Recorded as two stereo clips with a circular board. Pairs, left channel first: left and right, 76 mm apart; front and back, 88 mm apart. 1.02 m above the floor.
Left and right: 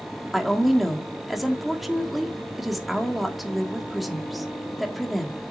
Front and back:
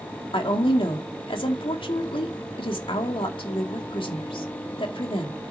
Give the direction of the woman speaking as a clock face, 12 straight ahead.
12 o'clock.